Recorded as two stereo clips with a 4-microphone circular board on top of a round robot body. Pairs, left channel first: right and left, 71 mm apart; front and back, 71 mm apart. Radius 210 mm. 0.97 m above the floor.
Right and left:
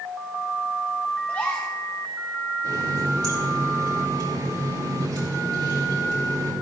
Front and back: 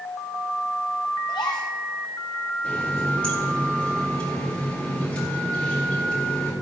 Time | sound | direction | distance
1.3 | a gasp | 20° right | 0.7 m
2.6 | a running tap | 75° left | 4.5 m